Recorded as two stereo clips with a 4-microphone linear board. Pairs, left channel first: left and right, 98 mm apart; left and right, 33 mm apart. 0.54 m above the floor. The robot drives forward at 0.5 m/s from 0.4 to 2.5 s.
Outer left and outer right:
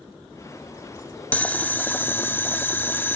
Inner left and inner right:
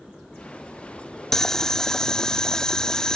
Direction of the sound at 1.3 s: 15° left (ahead or behind).